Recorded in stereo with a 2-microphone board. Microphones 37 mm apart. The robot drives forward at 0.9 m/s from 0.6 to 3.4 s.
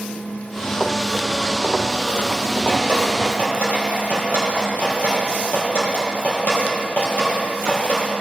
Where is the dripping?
60° left (ahead or behind), 3 m; by 8.1 s 55° left (ahead or behind), 3.5 m.